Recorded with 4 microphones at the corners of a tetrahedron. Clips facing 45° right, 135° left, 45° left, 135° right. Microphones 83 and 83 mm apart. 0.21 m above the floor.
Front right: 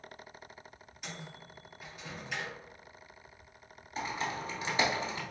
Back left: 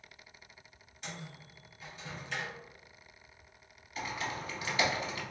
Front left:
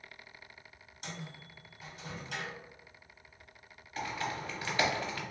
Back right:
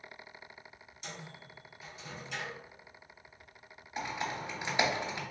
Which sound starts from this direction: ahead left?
A microwave, at 1.0 s.